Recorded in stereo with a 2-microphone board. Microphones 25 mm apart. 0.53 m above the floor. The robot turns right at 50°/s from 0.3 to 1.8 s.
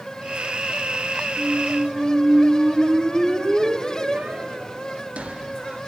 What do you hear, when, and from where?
1.4 s a squeak: 65° right (ahead or behind), 1.0 m